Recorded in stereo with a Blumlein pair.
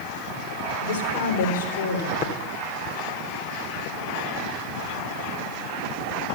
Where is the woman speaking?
60° left, 3.5 m; by 2.1 s 70° left, 4 m.